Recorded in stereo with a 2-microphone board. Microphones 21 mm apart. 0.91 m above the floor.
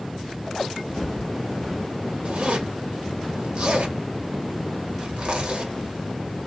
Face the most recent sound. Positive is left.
turn(degrees=-60)  # may be behind; listen again after turning